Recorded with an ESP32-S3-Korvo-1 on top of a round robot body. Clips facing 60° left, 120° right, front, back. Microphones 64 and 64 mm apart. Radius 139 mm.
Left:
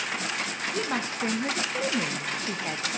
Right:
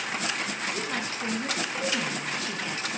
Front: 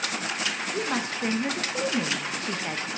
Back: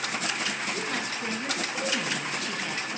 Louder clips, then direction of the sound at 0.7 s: Left 2 dB, front 3 dB; 30° left.